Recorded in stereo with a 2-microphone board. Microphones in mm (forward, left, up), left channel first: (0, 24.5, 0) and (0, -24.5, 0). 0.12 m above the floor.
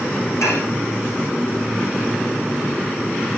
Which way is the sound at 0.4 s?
80° left.